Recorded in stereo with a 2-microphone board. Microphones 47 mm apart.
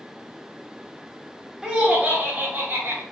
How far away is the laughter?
About 1.5 m.